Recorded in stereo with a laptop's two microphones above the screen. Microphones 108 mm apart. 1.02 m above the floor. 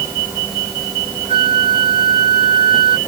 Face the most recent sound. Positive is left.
turn(degrees=-70)  # may be behind; listen again after turning